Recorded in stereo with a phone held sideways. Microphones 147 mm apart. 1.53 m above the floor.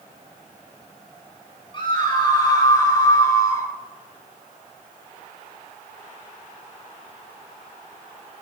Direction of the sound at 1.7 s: 35° left (ahead or behind).